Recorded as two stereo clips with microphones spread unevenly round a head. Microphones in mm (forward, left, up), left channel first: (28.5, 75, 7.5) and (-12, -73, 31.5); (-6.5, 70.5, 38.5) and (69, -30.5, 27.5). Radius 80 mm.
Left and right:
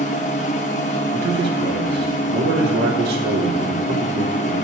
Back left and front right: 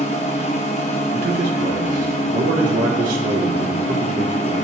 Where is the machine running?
115° left, 0.8 m.